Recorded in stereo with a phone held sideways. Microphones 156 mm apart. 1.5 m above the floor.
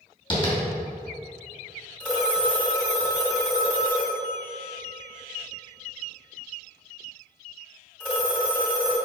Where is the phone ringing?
5° left (ahead or behind), 2.5 m.